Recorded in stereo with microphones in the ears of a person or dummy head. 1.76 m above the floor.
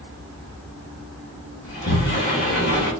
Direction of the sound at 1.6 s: 40° left (ahead or behind).